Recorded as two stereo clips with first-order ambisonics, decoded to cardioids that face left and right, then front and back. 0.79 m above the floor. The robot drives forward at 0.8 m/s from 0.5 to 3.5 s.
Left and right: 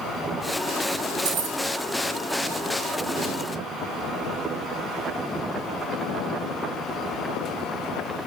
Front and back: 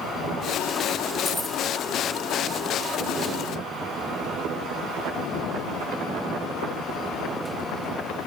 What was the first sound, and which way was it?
Keys jangling, 80° right.